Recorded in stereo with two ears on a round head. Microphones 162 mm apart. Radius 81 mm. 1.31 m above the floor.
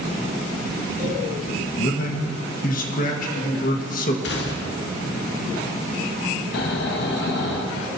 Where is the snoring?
60° left (ahead or behind), 1.0 m.